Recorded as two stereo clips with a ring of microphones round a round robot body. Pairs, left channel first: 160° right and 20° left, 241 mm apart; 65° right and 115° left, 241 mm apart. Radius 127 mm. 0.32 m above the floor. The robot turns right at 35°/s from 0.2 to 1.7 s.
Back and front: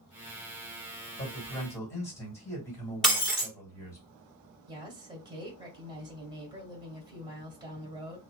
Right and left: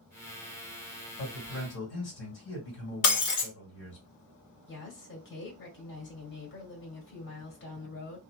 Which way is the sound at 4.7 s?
45° right.